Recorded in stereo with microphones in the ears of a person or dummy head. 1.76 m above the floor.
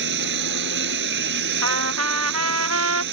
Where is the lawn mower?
60° right (ahead or behind).